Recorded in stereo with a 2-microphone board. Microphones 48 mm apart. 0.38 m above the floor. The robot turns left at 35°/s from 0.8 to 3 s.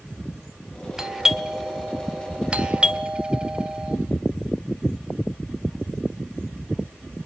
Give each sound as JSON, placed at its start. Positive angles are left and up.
{"t": 1.0, "sound": "a doorbell", "side_deg": -10, "distance_m": 1.4}